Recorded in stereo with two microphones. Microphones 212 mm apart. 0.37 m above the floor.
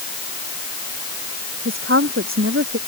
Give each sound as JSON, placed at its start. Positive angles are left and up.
{"t": 1.6, "sound": "a woman speaking", "side_deg": -75}